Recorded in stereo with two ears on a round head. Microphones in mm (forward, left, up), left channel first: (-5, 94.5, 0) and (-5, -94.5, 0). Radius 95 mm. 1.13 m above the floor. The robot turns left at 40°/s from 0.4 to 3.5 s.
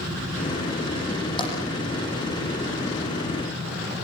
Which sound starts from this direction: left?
Tapping, at 1.4 s.